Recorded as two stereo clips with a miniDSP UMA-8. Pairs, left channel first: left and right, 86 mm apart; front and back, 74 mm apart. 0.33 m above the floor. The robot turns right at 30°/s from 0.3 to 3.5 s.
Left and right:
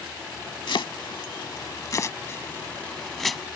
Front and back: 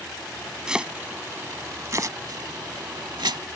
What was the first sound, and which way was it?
Chopping, 100° left.